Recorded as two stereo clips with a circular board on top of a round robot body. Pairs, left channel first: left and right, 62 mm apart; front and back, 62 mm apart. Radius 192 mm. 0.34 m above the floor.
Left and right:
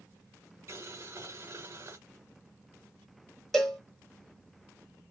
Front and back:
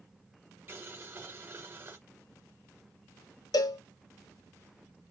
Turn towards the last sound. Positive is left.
turn(degrees=10)